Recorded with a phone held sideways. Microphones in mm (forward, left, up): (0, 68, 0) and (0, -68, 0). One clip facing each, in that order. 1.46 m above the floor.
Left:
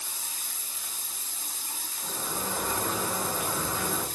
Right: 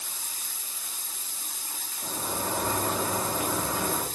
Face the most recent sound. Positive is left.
turn(degrees=-70)  # may be behind; listen again after turning